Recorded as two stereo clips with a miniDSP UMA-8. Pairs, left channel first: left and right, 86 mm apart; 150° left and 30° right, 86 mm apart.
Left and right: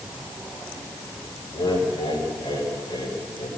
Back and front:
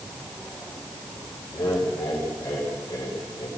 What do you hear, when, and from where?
1.5 s laughter: 110° left, 9 m